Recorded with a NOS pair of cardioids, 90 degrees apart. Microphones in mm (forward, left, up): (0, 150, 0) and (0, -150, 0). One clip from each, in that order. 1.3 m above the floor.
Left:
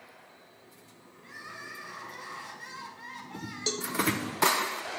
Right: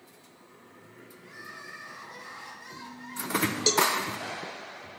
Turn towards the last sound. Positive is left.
turn(degrees=-30)